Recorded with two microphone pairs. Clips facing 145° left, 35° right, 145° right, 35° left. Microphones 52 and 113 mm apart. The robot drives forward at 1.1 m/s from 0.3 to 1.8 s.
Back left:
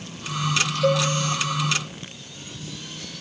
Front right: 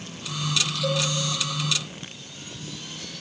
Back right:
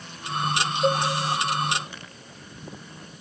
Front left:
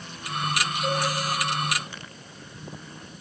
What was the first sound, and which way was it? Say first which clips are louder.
A cowbell: back left 7 dB, back right 5 dB; 175° left.